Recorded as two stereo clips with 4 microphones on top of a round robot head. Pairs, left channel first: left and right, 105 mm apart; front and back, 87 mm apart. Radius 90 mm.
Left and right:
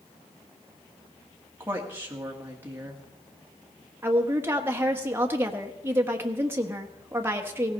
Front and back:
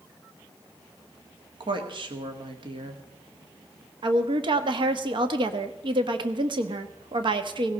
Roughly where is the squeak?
No squeak in this recording.